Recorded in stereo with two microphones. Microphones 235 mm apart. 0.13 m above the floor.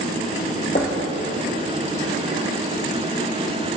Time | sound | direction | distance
0.8 | knocking | 35° left (ahead or behind) | 2.5 m